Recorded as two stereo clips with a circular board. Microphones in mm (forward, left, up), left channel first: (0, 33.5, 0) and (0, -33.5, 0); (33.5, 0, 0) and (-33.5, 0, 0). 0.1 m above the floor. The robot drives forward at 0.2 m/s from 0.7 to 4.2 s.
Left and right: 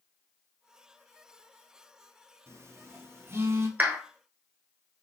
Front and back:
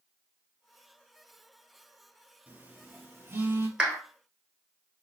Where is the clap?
120° right, 1.2 m; by 4.0 s 125° right, 1.2 m.